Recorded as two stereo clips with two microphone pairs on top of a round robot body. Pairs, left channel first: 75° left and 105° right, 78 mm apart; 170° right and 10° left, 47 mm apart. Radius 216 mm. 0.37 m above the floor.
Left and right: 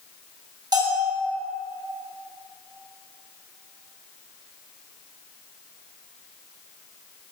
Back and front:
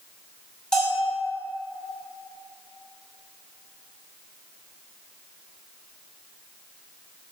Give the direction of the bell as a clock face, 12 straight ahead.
3 o'clock.